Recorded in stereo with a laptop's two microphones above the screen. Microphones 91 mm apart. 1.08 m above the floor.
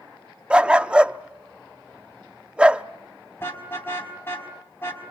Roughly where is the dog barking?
Centre.